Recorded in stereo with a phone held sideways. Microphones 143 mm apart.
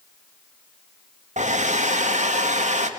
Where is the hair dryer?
55° right (ahead or behind), 1.2 m.